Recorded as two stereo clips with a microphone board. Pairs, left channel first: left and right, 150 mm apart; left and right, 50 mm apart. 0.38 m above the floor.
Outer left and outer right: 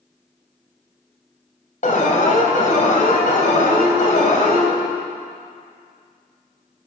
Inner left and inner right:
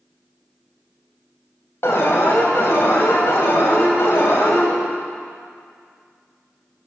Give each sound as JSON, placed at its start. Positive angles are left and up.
{"t": 1.8, "sound": "an alarm", "side_deg": 60, "distance_m": 3.0}